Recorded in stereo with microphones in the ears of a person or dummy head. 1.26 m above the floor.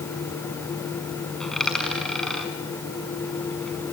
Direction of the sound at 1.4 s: Centre (ahead or behind).